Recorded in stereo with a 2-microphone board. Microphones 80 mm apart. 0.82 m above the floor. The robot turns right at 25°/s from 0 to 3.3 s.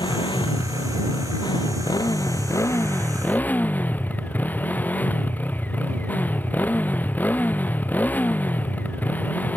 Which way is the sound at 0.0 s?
75° left.